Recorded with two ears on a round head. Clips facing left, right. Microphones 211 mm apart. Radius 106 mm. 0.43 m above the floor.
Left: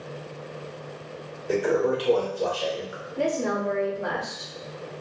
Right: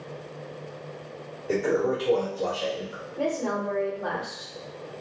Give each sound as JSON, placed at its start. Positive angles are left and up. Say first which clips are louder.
{"t": 1.5, "sound": "a toilet flushing", "louder": "left 1 dB", "side_deg": 0, "distance_m": 1.1}
{"t": 3.2, "sound": "a woman speaking", "louder": "left 2 dB", "side_deg": 30, "distance_m": 1.0}